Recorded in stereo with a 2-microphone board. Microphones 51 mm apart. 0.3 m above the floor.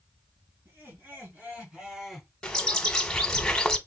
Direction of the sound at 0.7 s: 45° right (ahead or behind).